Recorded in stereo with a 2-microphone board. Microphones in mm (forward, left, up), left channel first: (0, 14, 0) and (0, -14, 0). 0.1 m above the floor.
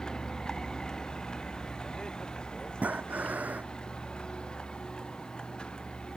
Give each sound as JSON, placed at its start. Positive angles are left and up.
{"t": 0.0, "sound": "a vehicle", "side_deg": 25}
{"t": 2.8, "sound": "breathing", "side_deg": -75}